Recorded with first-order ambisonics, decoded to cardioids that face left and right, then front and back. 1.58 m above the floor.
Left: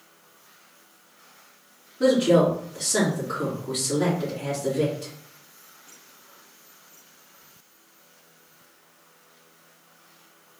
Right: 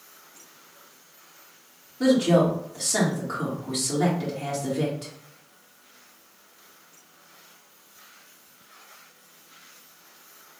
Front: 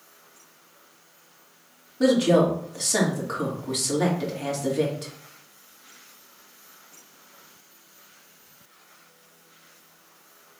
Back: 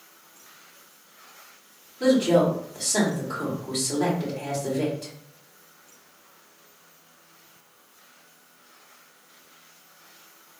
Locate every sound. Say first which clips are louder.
2.0 s a woman speaking: left 2 dB, even; 10° right, 2.0 m